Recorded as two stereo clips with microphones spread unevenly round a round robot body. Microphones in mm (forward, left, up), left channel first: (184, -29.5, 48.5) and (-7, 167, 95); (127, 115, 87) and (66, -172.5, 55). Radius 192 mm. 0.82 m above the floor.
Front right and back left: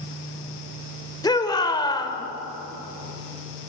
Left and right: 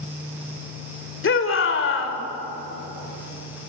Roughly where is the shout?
Ahead left.